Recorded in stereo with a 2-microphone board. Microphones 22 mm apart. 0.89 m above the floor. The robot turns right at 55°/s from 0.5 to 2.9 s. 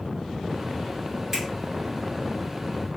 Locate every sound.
1.3 s a finger snap: 20° right (ahead or behind), 2.5 m; by 1.5 s 15° right (ahead or behind), 2.5 m